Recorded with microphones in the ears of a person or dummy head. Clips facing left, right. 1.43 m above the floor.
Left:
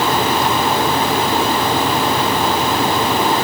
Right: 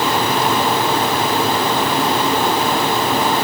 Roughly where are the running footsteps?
No running footsteps in this recording.